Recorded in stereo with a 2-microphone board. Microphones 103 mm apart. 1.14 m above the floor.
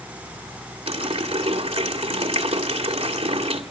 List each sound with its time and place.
0.9 s a running tap: 75° right (ahead or behind), 2 m